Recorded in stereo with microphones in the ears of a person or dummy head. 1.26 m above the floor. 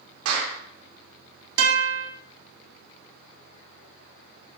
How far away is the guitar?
About 3.5 m.